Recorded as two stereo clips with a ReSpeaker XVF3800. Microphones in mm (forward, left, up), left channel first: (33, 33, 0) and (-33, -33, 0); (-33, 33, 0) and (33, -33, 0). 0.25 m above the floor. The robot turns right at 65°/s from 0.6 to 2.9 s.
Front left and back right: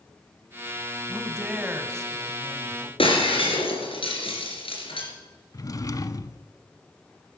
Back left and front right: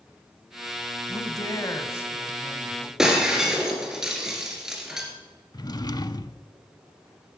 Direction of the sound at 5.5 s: 95° left.